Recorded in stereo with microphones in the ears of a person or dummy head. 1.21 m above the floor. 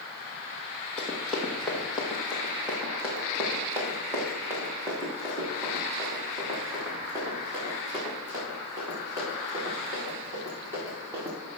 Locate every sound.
1.0 s running footsteps: centre (ahead or behind), 3 m; by 11.3 s 20° right (ahead or behind), 8.5 m